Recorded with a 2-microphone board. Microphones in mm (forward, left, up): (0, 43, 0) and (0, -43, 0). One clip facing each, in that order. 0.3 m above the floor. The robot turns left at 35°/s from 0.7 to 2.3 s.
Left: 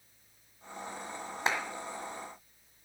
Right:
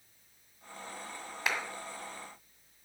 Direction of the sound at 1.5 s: 30° left (ahead or behind).